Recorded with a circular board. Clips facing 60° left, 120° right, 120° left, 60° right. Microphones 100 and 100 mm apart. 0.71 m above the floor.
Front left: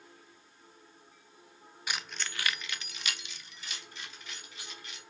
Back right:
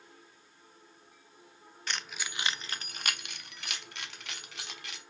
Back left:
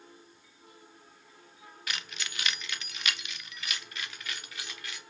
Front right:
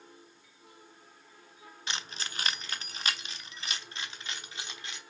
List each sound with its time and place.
1.9 s keys jangling: 15° right, 0.5 m; by 5.0 s 125° right, 1.5 m